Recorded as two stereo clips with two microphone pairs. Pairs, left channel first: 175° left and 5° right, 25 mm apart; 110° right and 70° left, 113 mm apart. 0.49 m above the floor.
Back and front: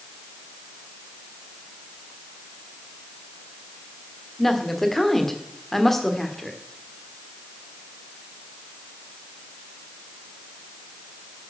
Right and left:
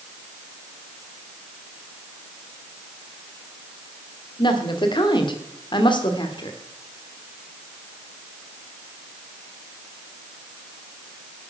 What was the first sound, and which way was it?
A woman speaking, 110° right.